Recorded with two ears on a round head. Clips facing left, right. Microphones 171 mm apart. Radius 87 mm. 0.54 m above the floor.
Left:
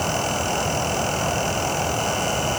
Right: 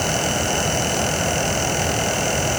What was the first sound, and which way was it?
Only background noise.